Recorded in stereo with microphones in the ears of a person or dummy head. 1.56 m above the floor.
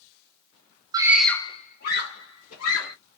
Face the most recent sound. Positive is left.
turn(degrees=80)